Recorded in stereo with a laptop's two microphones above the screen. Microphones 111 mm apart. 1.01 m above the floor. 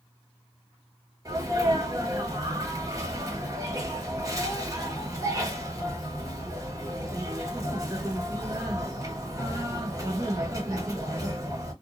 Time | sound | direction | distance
1.2 | a sneeze | 30° right (ahead or behind) | 1.7 m